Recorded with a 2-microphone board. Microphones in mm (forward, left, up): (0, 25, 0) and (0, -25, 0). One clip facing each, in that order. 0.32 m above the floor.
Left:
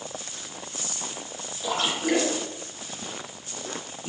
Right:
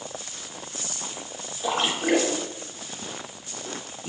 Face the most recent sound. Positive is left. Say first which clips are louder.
# right 1 dB
turn(degrees=-30)  # may be behind; listen again after turning